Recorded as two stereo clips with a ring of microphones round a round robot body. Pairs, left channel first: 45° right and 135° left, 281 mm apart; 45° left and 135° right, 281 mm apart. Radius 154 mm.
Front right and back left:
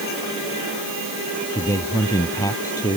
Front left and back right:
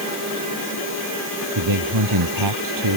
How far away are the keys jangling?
No keys jangling in this recording.